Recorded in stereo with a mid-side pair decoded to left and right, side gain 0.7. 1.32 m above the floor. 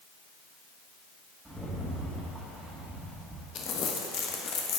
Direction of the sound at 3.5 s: 45° left.